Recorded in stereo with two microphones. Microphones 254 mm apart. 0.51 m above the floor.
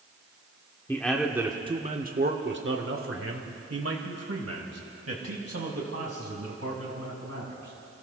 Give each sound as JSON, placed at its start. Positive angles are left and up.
{"t": 0.9, "sound": "a man speaking", "side_deg": 10, "distance_m": 1.1}